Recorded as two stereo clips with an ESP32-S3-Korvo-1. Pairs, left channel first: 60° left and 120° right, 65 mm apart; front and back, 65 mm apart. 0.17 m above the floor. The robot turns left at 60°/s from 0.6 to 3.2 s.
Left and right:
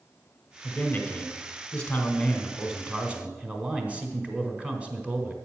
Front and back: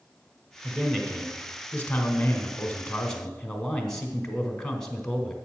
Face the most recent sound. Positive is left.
turn(degrees=-75)